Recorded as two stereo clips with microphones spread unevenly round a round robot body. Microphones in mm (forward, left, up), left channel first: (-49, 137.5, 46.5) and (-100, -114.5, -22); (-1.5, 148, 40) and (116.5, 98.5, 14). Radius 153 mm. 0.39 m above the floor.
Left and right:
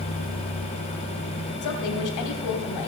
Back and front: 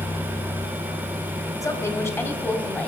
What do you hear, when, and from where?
1.6 s a woman speaking: 90° left, 2.5 m; by 2.9 s 75° left, 3.5 m